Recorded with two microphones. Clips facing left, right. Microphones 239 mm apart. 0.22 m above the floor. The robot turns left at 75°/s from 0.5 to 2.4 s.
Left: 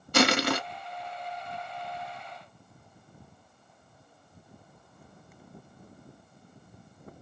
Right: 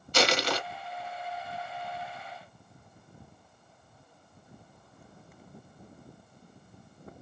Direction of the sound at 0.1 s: 60° left (ahead or behind).